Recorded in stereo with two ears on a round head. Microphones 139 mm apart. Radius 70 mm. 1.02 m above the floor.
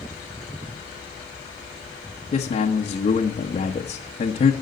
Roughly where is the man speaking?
Left.